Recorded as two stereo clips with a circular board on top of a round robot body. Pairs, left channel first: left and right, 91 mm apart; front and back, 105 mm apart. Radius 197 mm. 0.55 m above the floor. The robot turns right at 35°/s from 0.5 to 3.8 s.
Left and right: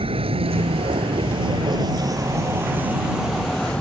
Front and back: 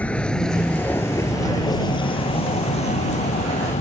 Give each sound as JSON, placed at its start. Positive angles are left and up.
{"t": 0.0, "sound": "a vehicle", "azimuth_deg": -80}